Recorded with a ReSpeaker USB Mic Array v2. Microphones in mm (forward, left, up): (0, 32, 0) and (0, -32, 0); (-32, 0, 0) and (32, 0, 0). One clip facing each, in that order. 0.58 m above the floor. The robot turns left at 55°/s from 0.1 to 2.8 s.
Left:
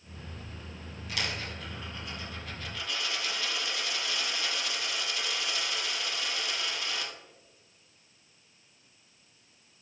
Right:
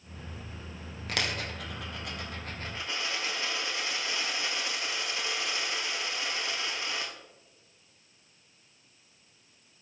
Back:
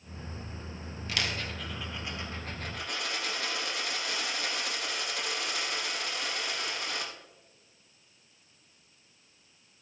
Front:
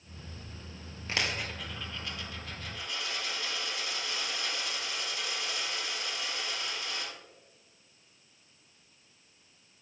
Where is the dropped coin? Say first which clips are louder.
Right 3 dB, front 1 dB; 60° right, 2 m; by 7.1 s 155° right, 2 m.